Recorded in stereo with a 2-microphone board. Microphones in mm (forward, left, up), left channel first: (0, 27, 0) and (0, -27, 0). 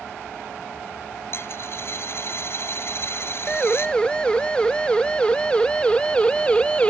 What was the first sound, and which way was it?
A dropped coin, 50° left (ahead or behind).